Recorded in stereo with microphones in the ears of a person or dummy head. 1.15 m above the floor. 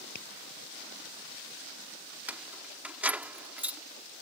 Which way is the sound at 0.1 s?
65° left (ahead or behind).